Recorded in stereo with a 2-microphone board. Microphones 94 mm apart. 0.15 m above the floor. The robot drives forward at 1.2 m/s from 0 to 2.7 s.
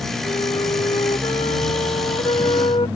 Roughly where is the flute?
Left.